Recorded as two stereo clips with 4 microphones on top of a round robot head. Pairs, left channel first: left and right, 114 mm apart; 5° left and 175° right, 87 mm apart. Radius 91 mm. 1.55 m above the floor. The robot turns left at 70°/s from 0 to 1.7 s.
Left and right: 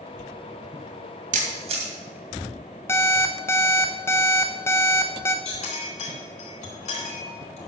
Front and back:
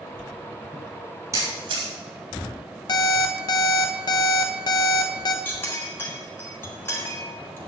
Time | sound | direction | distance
1.3 | a camera shutter | 110° right | 2 m
2.9 | an alarm clock | 25° left | 0.8 m
5.5 | a clink | 65° left | 3.5 m